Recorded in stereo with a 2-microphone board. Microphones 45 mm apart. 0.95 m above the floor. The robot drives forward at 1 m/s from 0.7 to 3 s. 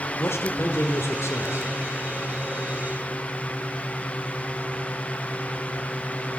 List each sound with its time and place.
0.2 s a man speaking: 65° left (ahead or behind), 3 m; by 1.7 s 80° left, 3 m